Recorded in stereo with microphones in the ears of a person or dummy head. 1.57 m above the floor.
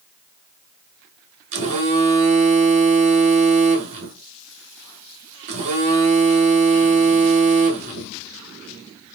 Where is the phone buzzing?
35° right (ahead or behind), 1.0 m.